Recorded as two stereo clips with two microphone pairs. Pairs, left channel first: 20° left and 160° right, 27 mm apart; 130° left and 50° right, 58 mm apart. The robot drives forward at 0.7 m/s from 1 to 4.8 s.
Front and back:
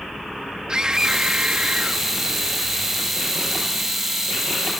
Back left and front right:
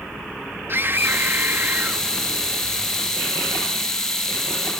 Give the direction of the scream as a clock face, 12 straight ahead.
3 o'clock.